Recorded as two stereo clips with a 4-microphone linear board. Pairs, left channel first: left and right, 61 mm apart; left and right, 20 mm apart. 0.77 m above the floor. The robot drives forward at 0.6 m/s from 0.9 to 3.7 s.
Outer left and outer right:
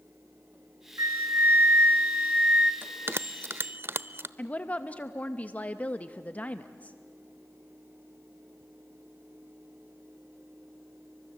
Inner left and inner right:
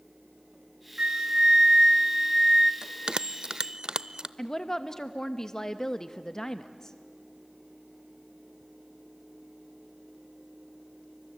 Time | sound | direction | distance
1.0 | a flute | 50° right (ahead or behind) | 1.0 m
2.8 | a bell | 35° right (ahead or behind) | 0.6 m
4.4 | a woman speaking | 25° left (ahead or behind) | 0.7 m